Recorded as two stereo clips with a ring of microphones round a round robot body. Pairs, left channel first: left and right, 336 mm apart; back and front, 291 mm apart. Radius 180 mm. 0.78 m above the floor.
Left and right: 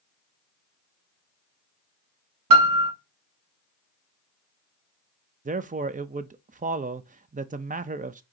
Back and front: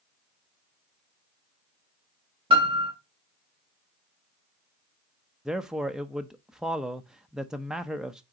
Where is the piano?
75° right, 1.3 m.